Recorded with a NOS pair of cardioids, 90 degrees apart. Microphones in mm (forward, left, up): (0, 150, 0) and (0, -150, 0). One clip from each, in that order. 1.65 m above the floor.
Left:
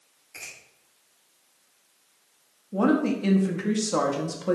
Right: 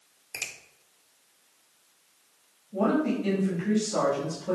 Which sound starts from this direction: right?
A finger snap, at 0.3 s.